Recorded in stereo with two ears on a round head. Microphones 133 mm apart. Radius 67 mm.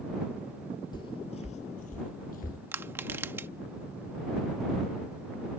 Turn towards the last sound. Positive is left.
turn(degrees=-15)  # may be behind; listen again after turning